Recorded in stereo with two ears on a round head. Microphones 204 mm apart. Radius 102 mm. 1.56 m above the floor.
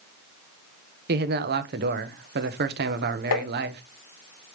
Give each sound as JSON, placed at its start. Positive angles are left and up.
{"t": 1.1, "sound": "a man speaking", "side_deg": -45, "distance_m": 1.1}
{"t": 3.3, "sound": "tapping", "side_deg": 75, "distance_m": 1.4}